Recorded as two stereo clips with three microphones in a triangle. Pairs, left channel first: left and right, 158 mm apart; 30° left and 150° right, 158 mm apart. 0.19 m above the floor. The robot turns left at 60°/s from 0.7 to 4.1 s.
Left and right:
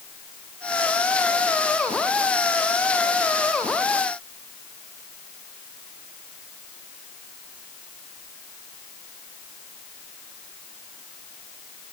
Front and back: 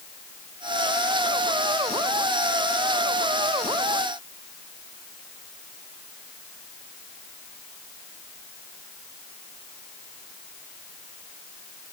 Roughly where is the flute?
No flute in this recording.